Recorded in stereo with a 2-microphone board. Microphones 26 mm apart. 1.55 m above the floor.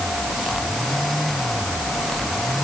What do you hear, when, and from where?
Only background noise.